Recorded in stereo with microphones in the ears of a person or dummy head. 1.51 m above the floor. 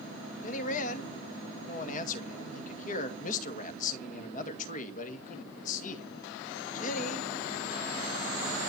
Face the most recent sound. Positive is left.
turn(degrees=50)  # may be behind; listen again after turning